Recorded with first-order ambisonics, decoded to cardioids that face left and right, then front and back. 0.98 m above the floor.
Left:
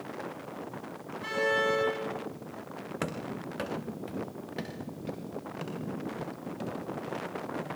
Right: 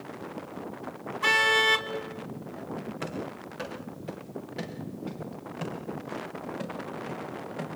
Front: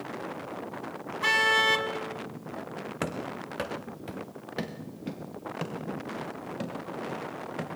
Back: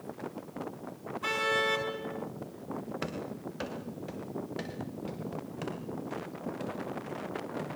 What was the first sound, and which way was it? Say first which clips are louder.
A car horn: right 6 dB, front 6 dB; 45° right.